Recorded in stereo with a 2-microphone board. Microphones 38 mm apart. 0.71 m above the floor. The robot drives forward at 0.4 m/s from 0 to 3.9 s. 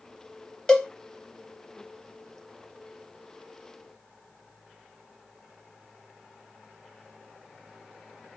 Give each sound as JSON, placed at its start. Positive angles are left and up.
{"t": 0.7, "sound": "a cowbell", "side_deg": 15, "distance_m": 0.9}